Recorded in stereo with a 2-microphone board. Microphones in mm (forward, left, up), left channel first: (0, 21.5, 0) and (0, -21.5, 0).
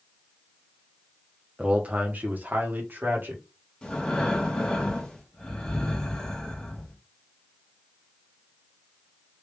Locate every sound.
1.6 s a man speaking: 25° right (ahead or behind), 0.8 m; by 3.4 s 55° right (ahead or behind), 1.8 m
3.8 s breathing: 20° left (ahead or behind), 1.0 m